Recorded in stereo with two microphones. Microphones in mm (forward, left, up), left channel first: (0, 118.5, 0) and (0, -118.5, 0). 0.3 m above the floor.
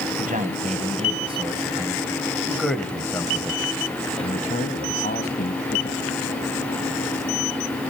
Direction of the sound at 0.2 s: 35° right (ahead or behind).